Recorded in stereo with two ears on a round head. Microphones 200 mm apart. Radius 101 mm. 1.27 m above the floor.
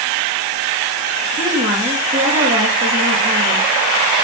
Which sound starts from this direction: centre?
A woman speaking, at 1.4 s.